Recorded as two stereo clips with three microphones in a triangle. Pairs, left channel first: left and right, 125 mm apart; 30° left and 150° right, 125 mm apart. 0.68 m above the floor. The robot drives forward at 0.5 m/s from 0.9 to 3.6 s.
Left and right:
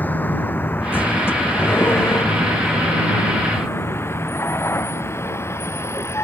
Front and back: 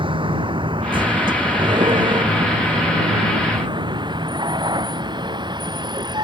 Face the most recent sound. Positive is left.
turn(degrees=160)